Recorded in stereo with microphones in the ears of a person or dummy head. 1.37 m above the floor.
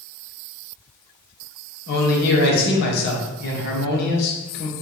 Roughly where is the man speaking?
Left.